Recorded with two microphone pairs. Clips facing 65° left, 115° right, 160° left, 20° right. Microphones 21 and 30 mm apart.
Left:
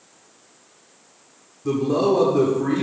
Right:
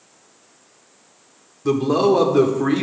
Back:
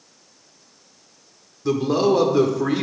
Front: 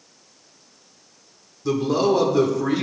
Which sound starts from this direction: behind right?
A man speaking, at 1.6 s.